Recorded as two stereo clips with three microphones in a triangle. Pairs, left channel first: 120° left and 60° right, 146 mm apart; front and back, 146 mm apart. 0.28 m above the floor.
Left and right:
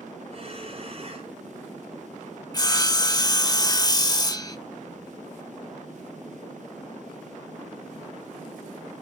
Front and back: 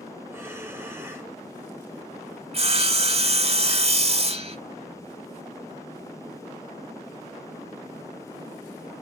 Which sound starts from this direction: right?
Breathing, at 0.3 s.